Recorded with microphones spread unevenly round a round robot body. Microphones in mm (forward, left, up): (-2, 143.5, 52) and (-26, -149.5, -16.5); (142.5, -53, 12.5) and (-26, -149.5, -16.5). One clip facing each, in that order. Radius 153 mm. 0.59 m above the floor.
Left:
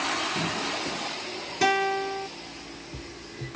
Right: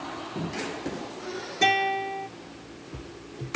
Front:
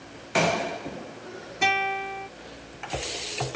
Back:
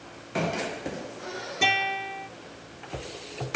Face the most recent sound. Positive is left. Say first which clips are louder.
# left 3 dB, front 3 dB
turn(degrees=155)